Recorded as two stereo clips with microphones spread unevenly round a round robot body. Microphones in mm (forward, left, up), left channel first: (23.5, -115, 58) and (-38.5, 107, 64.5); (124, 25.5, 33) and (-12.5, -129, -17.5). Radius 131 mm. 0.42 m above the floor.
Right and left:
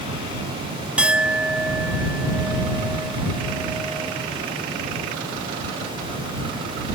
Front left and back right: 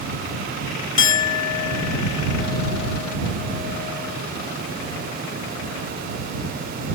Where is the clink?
20° left.